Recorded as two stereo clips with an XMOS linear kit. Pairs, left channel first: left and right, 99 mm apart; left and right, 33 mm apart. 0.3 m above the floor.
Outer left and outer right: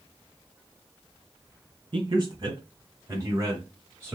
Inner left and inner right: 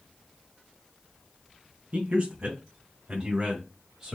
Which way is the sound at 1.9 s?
50° right (ahead or behind).